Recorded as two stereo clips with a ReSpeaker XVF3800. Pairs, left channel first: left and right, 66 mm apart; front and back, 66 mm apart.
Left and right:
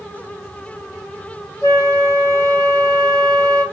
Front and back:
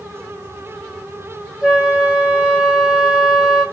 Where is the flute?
105° left, 2 m.